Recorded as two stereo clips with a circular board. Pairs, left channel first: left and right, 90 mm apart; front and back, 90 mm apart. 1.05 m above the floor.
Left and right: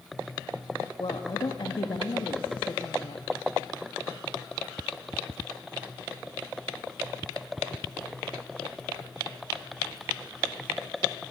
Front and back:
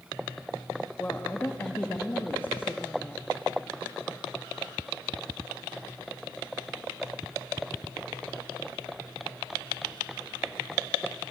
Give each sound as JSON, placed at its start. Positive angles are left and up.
{"t": 1.0, "sound": "a woman speaking", "azimuth_deg": 65, "distance_m": 1.8}